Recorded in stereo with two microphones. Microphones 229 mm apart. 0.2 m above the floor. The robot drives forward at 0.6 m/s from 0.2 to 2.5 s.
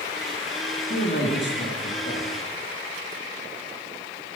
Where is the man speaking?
50° left (ahead or behind), 3.5 m; by 2.3 s 55° left (ahead or behind), 3 m.